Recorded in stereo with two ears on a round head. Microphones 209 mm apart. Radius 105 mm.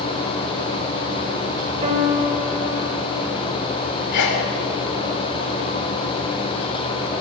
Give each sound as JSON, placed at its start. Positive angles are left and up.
{"t": 1.8, "sound": "a piano", "side_deg": -25, "distance_m": 4.5}
{"t": 4.1, "sound": "a sneeze", "side_deg": 85, "distance_m": 7.0}